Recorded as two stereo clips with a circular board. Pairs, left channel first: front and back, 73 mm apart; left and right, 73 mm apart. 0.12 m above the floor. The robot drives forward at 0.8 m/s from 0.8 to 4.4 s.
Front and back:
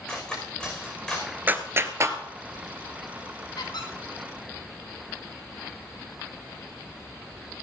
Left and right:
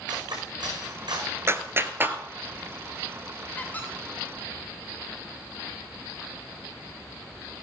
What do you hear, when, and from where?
0.1 s cutlery clinking: 80° right, 5.5 m
1.5 s a clap: 125° right, 1.4 m; by 2.2 s 145° right, 1.7 m
3.6 s a squeak: 20° left, 5 m; by 3.9 s 25° left, 5 m